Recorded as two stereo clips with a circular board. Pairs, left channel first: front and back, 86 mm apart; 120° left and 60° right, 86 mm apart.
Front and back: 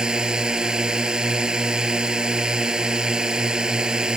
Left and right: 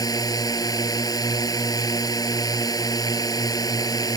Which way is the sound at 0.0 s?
100° left.